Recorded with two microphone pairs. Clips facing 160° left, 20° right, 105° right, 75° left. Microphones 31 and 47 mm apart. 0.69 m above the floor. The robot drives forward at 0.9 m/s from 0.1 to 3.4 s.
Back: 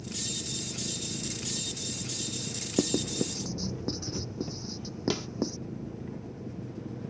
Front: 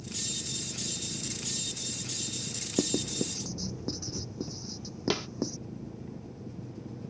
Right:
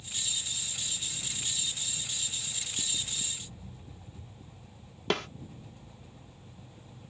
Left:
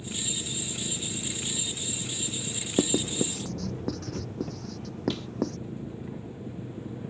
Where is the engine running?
95° left; by 7.1 s 100° left.